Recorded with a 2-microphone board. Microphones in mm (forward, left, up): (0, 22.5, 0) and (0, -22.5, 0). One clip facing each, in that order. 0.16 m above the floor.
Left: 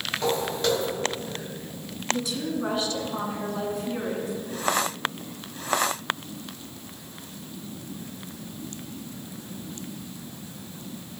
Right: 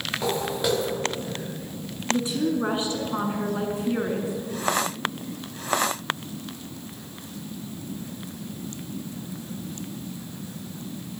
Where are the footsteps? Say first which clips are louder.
Left 1 dB; 10° right (ahead or behind), 4 m.